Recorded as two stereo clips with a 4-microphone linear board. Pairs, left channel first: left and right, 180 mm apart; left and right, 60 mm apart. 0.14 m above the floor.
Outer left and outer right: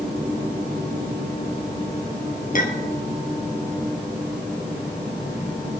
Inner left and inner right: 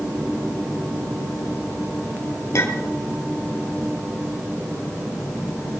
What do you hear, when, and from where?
2.5 s a clink: 50° left (ahead or behind), 1.9 m